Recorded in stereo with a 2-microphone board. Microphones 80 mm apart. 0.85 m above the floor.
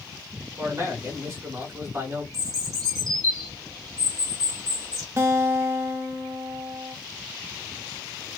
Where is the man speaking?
40° right (ahead or behind), 1.5 m.